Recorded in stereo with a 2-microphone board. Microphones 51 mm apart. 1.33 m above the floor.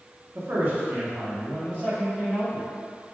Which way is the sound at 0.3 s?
50° right (ahead or behind).